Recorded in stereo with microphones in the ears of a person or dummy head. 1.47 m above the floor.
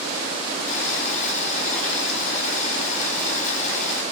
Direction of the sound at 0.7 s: 45° left (ahead or behind).